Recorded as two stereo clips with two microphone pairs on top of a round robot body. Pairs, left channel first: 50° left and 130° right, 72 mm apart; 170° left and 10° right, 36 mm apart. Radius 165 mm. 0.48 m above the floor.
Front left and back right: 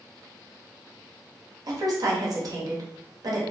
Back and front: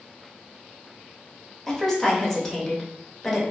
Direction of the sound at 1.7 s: 125° right.